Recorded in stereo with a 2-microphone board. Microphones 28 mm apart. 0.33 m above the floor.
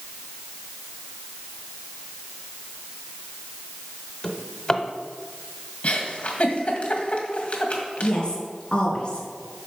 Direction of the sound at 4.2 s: 25° left (ahead or behind).